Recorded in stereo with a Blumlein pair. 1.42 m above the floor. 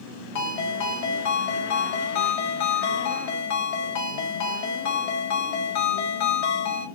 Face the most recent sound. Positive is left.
turn(degrees=50)